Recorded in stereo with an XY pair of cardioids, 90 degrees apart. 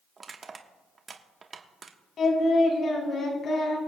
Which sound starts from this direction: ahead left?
Singing, at 2.2 s.